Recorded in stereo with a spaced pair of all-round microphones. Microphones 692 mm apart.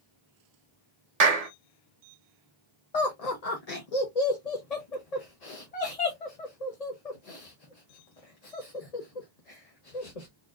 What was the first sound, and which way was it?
A clap, 60° right (ahead or behind).